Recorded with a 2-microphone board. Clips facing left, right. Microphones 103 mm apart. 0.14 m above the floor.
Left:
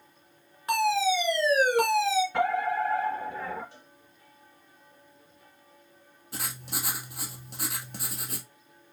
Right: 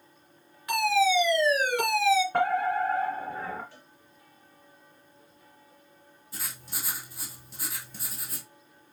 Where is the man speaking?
I don't hear a man speaking.